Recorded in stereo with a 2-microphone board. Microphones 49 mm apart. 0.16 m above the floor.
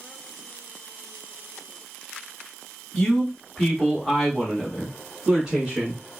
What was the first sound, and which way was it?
A man speaking, 10° left (ahead or behind).